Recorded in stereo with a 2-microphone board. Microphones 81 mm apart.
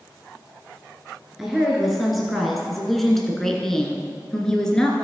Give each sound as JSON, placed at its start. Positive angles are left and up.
{"t": 1.4, "sound": "a woman speaking", "side_deg": -5, "distance_m": 1.7}